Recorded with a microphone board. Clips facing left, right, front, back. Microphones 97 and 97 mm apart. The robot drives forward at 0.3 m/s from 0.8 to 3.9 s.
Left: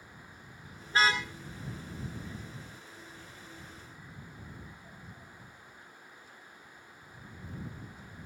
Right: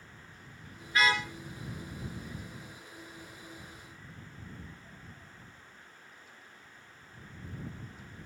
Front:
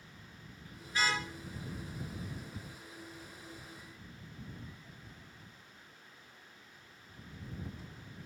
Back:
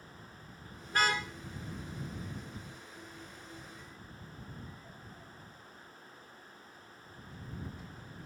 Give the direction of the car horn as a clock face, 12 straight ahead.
7 o'clock.